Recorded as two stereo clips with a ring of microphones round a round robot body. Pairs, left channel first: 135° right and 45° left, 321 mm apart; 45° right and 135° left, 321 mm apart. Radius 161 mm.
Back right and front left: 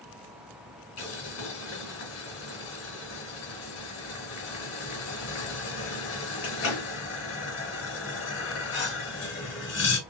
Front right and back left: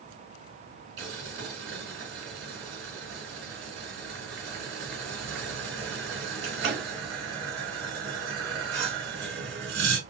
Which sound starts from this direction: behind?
Boiling, at 1.0 s.